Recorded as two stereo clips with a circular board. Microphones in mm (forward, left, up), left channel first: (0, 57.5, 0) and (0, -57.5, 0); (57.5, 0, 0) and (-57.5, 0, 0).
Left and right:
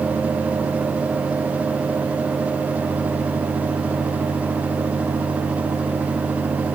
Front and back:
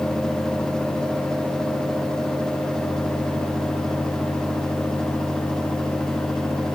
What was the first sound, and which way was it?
Only background noise.